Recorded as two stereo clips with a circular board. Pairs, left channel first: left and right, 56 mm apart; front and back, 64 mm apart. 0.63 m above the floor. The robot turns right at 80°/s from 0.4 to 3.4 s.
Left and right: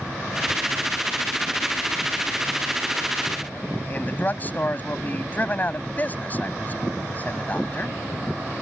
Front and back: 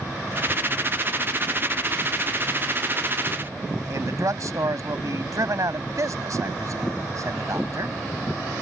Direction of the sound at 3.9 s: 145° left.